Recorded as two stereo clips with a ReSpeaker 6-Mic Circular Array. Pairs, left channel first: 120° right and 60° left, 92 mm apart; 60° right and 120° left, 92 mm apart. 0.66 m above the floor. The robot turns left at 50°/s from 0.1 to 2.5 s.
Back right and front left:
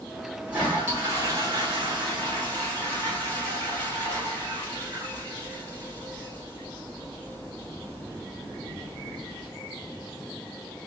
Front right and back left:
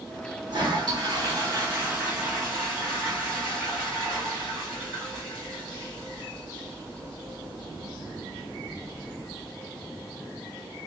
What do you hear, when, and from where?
0.5 s a toilet flushing: 130° left, 1.7 m; by 9.5 s 25° left, 1.7 m